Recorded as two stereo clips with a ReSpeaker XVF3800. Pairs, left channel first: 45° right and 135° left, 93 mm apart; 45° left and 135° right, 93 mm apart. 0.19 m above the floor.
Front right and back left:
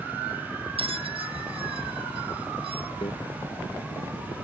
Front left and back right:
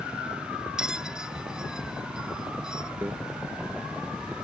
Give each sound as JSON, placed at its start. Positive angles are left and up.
{"t": 0.8, "sound": "a bell", "azimuth_deg": 140}
{"t": 3.0, "sound": "a microwave", "azimuth_deg": -65}